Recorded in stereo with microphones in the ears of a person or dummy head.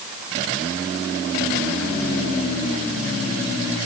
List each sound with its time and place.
Only background noise.